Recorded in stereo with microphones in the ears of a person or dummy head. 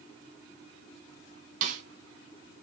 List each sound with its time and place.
1.6 s a snare drum: 50° right (ahead or behind), 3 m